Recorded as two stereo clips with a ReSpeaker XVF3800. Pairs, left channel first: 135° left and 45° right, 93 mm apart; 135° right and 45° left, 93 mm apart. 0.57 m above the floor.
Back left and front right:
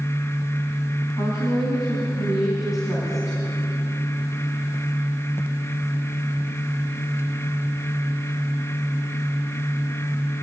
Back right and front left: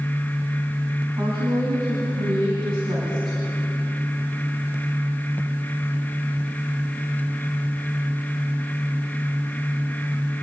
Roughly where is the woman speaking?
Left.